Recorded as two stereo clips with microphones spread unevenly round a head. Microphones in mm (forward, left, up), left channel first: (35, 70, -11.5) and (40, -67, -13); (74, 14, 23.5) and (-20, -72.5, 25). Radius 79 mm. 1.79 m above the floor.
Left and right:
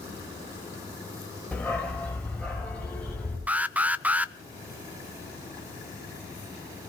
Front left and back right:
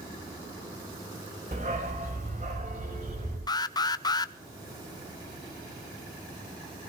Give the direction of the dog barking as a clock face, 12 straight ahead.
6 o'clock.